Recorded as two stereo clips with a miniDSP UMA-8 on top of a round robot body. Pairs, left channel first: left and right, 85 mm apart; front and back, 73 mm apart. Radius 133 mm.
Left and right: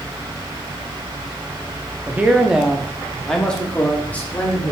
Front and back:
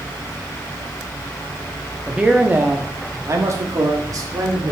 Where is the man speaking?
120° right, 1.3 m; by 4.7 s 155° left, 2.5 m.